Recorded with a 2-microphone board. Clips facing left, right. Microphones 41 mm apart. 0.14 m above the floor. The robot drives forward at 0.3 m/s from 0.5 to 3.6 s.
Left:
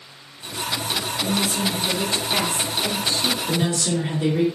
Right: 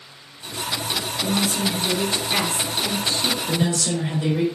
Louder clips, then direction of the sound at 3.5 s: Even; 25° left (ahead or behind).